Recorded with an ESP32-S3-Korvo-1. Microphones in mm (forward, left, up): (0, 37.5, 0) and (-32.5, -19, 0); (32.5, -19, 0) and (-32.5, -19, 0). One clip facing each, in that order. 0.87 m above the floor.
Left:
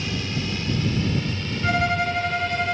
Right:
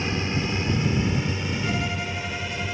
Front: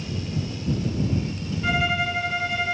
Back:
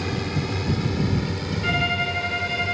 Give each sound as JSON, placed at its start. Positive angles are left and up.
{"t": 0.0, "sound": "a drone", "azimuth_deg": 180}
{"t": 1.6, "sound": "a violin", "azimuth_deg": 85}